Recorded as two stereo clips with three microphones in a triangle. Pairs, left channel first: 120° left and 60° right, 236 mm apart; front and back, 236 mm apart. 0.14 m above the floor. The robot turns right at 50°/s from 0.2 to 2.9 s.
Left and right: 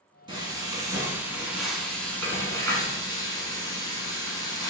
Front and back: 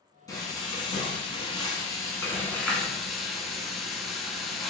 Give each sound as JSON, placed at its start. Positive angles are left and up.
{"t": 0.3, "sound": "frying", "azimuth_deg": -40, "distance_m": 1.2}